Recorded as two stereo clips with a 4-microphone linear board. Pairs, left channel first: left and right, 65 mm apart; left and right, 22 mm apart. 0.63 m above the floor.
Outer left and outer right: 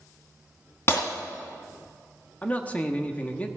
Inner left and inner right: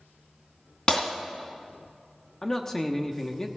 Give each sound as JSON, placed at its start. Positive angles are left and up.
{"t": 0.9, "sound": "breaking glass", "side_deg": 45, "distance_m": 2.5}
{"t": 2.4, "sound": "a man speaking", "side_deg": 25, "distance_m": 1.1}